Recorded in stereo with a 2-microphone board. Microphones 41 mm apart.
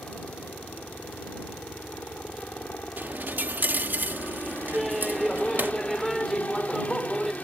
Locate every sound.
0.0 s a helicopter: 40° left (ahead or behind)
3.0 s a dropped coin: 50° right (ahead or behind)
4.7 s laughter: 5° right (ahead or behind)